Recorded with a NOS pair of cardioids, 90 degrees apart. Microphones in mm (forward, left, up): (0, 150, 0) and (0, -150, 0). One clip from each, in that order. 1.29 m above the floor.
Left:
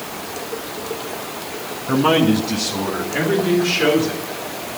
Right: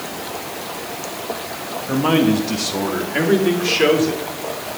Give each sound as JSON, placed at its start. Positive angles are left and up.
{"t": 1.9, "sound": "a man speaking", "azimuth_deg": 20, "distance_m": 1.5}